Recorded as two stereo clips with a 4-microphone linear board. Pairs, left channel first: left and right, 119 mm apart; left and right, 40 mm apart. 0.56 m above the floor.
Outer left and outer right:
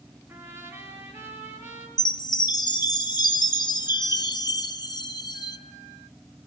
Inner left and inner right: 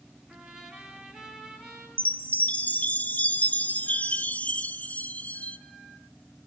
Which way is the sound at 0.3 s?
20° right (ahead or behind).